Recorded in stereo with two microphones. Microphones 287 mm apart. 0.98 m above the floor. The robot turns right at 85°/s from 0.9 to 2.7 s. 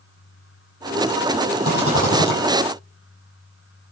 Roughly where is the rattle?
Behind right.